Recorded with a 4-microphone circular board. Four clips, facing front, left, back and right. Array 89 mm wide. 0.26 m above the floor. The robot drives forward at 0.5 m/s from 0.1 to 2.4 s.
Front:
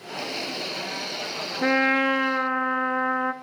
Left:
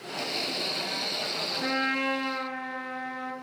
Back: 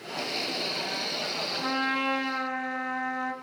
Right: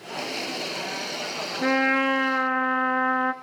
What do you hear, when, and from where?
1.6 s a trumpet: 30° right, 0.8 m; by 3.3 s 55° right, 0.5 m